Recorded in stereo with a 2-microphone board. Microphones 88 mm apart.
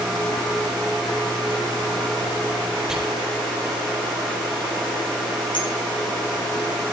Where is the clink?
75° left (ahead or behind), 6 m.